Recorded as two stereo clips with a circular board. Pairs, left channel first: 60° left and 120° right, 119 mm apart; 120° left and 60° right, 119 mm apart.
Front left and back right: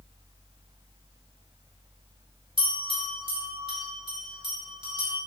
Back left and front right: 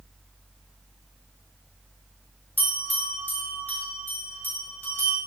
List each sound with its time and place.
2.6 s a bell: 165° right, 4 m